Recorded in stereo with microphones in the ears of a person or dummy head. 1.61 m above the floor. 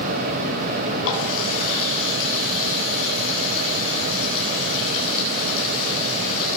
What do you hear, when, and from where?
1.0 s a running tap: 75° left (ahead or behind), 8.5 m